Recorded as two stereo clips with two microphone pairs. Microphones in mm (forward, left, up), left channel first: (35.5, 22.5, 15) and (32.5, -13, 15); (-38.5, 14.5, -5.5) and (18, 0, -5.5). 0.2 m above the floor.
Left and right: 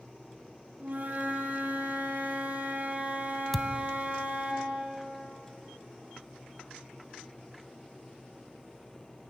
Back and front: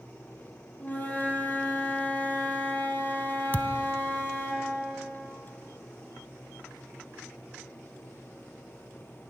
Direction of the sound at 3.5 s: 165° left.